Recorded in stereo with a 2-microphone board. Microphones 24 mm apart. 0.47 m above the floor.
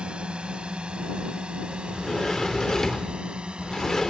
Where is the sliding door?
20° left (ahead or behind).